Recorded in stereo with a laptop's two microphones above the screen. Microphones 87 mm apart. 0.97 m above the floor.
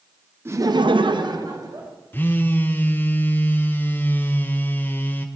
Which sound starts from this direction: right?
Laughter, at 0.5 s.